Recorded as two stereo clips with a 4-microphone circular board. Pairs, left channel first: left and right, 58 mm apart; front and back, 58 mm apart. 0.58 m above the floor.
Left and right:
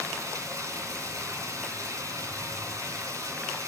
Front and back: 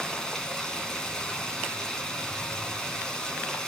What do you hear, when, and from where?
0.0 s running water: 75° right, 2.5 m